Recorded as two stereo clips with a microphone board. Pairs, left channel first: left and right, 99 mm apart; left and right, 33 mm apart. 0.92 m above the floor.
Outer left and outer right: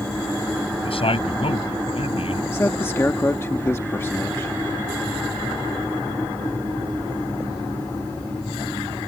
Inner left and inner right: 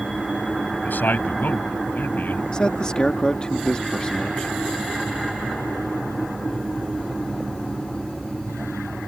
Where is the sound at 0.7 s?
75° left (ahead or behind).